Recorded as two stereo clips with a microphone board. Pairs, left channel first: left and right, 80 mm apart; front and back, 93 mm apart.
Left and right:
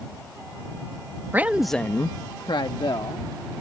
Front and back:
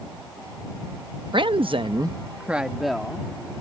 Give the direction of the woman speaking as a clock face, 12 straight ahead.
5 o'clock.